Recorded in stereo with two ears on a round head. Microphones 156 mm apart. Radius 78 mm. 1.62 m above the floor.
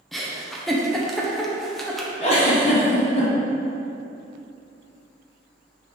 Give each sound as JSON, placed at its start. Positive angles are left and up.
{"t": 0.1, "sound": "a giggle", "side_deg": 0, "distance_m": 1.1}
{"t": 2.2, "sound": "a giggle", "side_deg": 40, "distance_m": 2.0}